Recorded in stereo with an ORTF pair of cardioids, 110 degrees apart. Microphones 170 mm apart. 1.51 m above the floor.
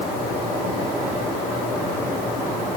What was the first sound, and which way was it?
Only background noise.